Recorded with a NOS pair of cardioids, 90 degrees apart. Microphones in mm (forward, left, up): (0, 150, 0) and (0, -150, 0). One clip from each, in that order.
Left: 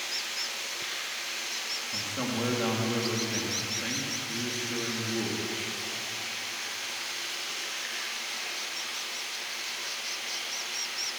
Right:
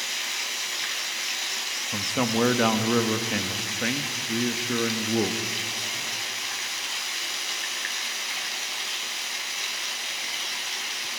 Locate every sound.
0.0 s running water: 65° right, 4 m
1.9 s a man speaking: 65° right, 2.0 m